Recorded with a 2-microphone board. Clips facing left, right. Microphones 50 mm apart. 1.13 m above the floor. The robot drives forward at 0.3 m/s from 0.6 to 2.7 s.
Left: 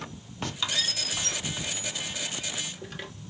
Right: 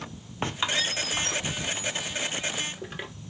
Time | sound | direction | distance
0.4 | a squeak | 30° right (ahead or behind) | 0.7 m